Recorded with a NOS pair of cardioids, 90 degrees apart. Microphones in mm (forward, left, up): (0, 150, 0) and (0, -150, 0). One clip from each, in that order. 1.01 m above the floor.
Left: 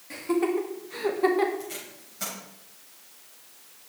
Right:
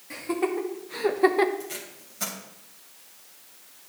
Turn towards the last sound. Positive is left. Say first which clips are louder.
# right 1 dB
turn(degrees=-10)